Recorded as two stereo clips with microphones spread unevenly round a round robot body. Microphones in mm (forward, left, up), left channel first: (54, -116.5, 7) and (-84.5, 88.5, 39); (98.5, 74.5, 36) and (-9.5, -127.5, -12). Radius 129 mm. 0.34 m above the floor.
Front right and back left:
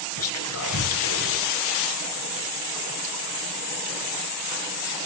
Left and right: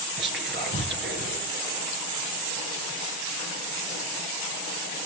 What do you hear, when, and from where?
0.2 s whispering: 80° right, 6 m